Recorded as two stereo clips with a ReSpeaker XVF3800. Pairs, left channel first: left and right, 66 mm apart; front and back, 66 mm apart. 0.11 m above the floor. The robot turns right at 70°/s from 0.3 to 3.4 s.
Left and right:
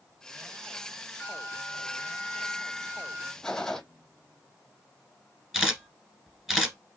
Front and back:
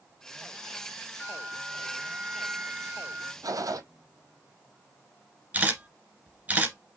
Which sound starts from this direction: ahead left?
A bell, at 1.2 s.